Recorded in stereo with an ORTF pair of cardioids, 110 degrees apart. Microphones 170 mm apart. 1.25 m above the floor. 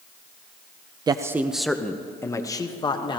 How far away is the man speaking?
About 0.5 m.